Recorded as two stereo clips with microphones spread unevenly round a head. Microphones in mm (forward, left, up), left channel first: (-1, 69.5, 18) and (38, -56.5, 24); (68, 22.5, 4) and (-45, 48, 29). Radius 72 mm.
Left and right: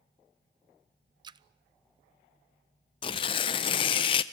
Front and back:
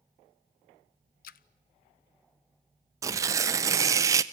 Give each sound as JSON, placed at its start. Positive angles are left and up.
{"t": 1.2, "sound": "a splash", "azimuth_deg": -15, "distance_m": 0.5}
{"t": 3.0, "sound": "tearing paper", "azimuth_deg": 145, "distance_m": 0.7}